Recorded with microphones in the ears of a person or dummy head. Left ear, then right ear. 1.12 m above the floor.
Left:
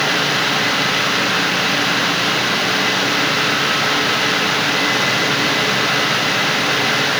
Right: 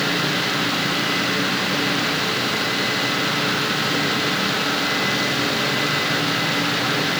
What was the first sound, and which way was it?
Only background noise.